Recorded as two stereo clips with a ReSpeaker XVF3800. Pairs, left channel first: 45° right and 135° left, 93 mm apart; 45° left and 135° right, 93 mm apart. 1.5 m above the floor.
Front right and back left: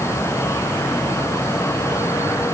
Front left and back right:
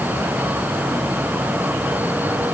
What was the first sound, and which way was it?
Only background noise.